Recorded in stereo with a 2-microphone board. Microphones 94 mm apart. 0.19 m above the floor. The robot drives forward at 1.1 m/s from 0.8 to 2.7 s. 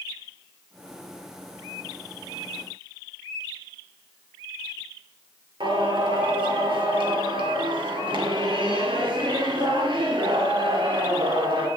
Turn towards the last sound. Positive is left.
turn(degrees=-60)  # may be behind; listen again after turning